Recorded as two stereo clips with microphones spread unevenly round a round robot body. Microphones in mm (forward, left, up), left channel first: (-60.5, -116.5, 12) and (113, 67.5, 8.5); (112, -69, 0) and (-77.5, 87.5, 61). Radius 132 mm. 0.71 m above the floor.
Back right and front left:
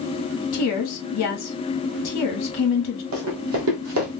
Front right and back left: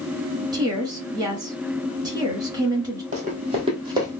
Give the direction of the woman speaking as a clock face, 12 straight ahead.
5 o'clock.